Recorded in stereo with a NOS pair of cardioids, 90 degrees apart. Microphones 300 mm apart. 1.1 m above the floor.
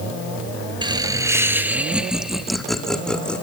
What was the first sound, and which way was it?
Laughter, 15° right.